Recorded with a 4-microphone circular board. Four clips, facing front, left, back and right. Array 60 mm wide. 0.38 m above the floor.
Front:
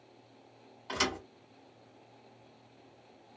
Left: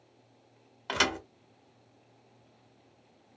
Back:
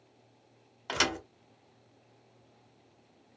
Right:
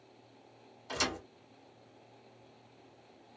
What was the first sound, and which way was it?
A thud, 120° left.